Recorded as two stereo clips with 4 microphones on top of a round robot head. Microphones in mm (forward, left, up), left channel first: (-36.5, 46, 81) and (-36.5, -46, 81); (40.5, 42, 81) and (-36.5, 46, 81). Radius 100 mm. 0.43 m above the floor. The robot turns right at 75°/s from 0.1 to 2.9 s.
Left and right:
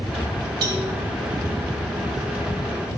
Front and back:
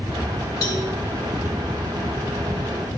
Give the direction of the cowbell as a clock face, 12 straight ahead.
2 o'clock.